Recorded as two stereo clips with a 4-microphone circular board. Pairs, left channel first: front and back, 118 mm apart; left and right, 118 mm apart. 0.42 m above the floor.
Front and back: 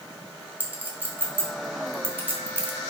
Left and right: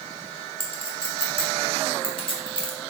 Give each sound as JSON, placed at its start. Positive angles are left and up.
{"t": 0.6, "sound": "a clink", "azimuth_deg": 110, "distance_m": 1.0}